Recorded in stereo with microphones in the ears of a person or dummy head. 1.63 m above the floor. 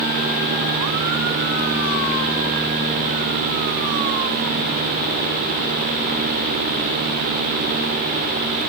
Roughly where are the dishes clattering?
I don't hear dishes clattering.